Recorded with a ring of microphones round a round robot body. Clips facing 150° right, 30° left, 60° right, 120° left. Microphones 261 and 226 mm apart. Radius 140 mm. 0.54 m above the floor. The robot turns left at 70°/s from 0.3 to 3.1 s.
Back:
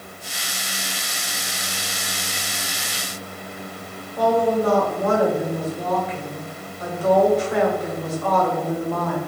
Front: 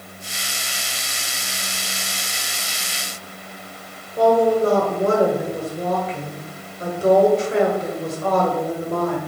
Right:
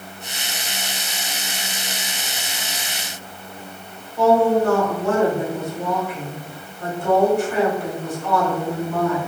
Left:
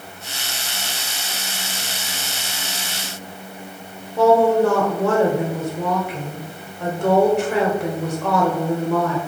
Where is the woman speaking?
95° left, 2 m.